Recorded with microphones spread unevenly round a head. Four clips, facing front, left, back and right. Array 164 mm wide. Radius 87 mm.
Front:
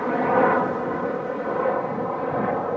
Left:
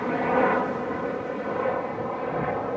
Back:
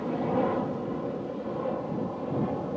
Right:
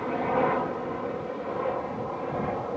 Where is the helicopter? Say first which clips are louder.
Left 3 dB, front 8 dB; 15° left.